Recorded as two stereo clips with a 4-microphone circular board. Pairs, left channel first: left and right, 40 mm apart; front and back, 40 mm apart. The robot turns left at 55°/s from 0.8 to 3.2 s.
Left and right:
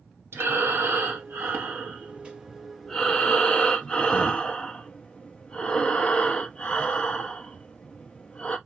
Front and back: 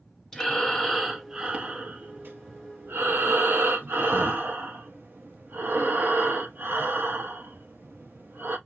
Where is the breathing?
75° right, 0.8 m; by 8.6 s 155° left, 0.8 m.